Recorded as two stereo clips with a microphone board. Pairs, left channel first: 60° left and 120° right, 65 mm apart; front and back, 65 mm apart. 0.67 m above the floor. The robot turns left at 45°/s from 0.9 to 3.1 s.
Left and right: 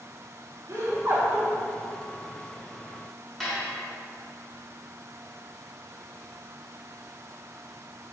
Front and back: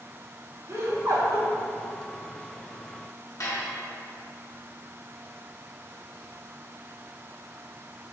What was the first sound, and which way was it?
Laughter, 150° right.